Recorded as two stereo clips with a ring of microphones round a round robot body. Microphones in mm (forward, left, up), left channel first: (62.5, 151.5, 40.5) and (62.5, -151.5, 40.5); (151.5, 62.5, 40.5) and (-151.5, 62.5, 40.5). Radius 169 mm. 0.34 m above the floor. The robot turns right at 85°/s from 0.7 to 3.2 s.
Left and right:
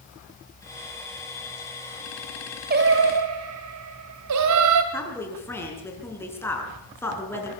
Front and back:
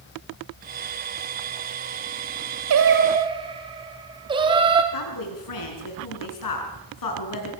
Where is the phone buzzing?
I don't hear a phone buzzing.